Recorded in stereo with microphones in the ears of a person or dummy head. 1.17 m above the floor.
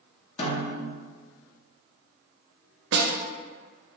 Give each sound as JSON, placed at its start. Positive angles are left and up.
{"t": 0.4, "sound": "a snare drum", "side_deg": 30, "distance_m": 0.7}
{"t": 2.9, "sound": "a snare drum", "side_deg": -55, "distance_m": 0.5}